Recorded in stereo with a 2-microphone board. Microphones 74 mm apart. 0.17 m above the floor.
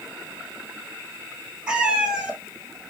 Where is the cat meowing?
10° right (ahead or behind), 1.1 m.